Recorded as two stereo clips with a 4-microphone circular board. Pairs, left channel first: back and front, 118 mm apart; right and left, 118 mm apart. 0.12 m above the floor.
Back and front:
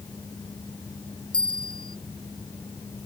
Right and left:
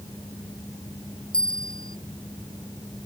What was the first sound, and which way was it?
A bell, 135° right.